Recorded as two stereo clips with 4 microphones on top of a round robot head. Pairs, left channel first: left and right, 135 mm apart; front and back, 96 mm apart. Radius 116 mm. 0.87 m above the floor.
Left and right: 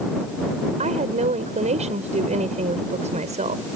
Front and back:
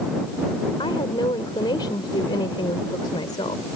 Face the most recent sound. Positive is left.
turn(degrees=-55)